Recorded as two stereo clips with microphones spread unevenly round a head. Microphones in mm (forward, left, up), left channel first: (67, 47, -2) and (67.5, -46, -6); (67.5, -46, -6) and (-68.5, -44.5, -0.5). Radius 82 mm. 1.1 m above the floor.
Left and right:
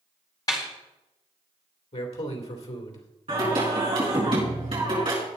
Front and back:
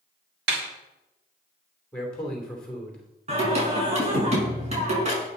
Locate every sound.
0.5 s a snare drum: 160° left, 2.5 m
1.9 s a man speaking: 85° left, 3 m
3.3 s singing: 145° right, 6 m